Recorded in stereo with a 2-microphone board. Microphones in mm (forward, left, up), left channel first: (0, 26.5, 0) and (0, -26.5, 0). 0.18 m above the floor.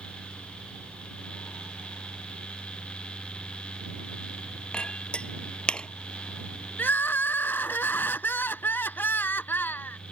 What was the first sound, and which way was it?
A clink, 20° left (ahead or behind).